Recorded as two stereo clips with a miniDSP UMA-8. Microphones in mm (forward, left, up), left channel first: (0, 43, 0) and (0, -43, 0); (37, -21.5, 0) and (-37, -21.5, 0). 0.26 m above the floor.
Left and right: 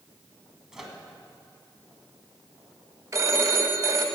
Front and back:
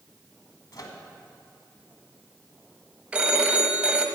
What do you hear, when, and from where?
0.7 s a microwave: 10° right, 1.6 m
3.1 s a phone ringing: 115° right, 1.2 m